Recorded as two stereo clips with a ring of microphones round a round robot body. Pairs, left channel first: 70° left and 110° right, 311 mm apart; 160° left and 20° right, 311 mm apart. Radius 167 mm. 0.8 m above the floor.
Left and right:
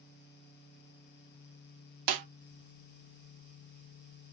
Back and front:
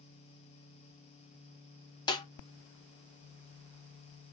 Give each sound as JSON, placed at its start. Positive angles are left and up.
{"t": 2.1, "sound": "a snare drum", "azimuth_deg": -125, "distance_m": 0.7}